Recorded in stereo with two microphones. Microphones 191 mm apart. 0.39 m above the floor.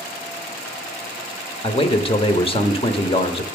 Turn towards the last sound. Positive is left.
turn(degrees=30)  # may be behind; listen again after turning